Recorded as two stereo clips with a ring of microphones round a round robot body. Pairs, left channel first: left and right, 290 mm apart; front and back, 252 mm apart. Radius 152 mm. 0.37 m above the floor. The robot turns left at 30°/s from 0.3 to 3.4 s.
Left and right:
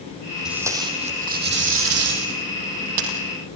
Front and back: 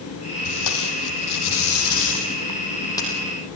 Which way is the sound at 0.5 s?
Straight ahead.